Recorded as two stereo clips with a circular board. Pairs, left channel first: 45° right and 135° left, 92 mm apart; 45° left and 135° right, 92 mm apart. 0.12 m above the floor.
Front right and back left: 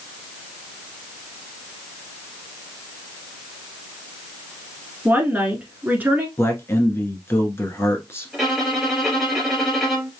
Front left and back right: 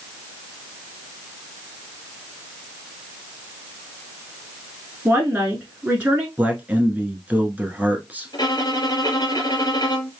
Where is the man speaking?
75° right, 1.2 m.